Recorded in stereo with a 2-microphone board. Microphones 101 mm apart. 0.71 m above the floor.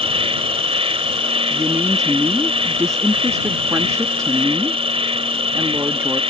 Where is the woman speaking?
30° right (ahead or behind).